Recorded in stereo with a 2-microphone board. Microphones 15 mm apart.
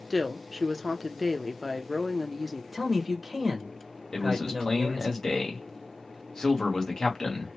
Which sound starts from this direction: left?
A man speaking, at 4.1 s.